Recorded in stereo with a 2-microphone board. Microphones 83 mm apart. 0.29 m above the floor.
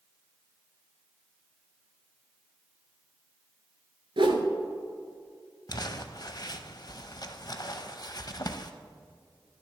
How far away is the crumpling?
About 0.6 m.